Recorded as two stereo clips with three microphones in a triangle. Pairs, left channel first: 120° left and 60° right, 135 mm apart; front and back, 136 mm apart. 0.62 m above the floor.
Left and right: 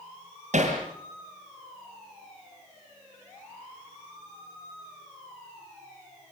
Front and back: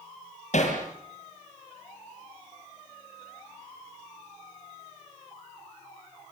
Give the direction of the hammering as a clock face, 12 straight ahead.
1 o'clock.